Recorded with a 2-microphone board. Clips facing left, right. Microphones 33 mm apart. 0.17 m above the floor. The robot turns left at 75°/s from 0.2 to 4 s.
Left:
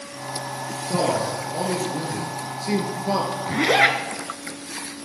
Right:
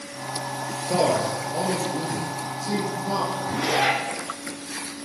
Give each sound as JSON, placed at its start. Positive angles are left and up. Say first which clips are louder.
{"t": 0.9, "sound": "a man speaking", "louder": "right 1 dB", "azimuth_deg": -125, "distance_m": 2.5}
{"t": 3.5, "sound": "a zipper", "louder": "left 5 dB", "azimuth_deg": 105, "distance_m": 1.0}